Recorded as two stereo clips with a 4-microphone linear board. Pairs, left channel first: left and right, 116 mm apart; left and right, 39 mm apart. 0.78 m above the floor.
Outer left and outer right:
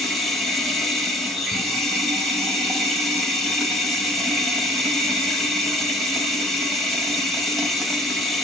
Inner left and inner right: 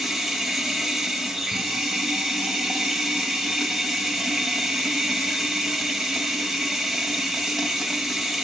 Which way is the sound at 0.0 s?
Centre (ahead or behind).